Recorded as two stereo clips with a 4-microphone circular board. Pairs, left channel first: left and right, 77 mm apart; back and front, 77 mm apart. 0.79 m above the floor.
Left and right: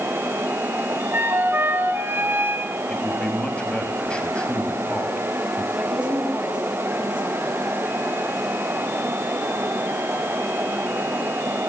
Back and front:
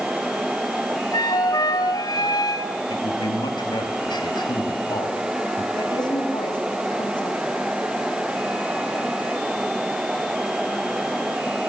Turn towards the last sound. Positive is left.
turn(degrees=-165)